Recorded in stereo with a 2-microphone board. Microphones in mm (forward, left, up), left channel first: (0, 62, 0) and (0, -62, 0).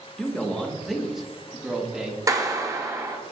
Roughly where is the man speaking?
Centre.